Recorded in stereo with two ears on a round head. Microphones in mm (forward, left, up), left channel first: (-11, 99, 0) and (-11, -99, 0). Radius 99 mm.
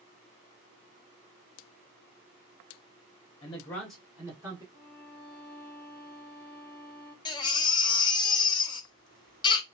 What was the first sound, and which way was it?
A man speaking, 25° left (ahead or behind).